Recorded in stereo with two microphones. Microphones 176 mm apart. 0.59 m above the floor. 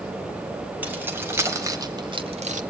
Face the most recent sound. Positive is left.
turn(degrees=-45)  # may be behind; listen again after turning